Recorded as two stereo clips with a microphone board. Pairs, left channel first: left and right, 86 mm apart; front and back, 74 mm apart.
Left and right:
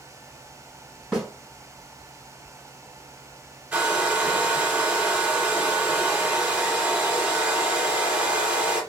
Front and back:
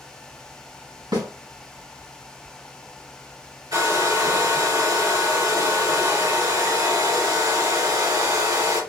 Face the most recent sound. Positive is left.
turn(degrees=-165)